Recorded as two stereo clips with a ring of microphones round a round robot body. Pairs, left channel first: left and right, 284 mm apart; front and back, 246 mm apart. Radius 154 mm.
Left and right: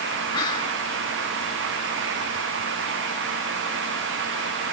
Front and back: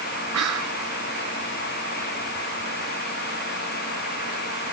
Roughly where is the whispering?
Behind.